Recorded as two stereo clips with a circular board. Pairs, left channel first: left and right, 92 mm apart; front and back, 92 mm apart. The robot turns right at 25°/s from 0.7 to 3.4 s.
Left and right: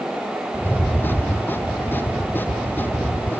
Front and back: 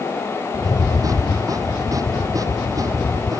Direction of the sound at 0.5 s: 15° left.